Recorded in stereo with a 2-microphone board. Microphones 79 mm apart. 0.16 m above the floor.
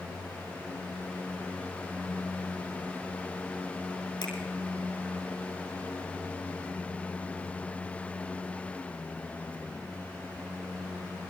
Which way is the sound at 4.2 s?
80° left.